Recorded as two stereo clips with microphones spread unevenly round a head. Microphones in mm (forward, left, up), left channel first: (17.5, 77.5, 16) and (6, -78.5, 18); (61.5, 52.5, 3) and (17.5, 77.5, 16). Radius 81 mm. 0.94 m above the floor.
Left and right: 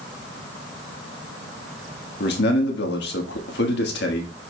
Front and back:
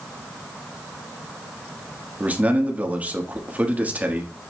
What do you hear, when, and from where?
2.2 s a man speaking: 90° left, 1.4 m